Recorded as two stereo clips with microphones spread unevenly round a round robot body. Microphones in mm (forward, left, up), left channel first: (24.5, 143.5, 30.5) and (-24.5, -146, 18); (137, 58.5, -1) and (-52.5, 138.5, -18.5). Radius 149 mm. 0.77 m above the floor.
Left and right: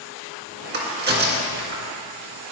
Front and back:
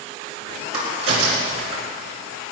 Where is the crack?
155° right, 3 m.